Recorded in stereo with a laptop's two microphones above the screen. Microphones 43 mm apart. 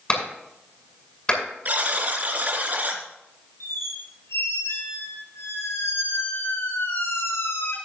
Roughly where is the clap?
Left.